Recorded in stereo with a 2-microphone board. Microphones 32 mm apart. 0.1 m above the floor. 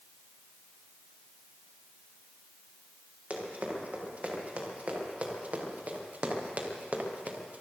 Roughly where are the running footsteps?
Right.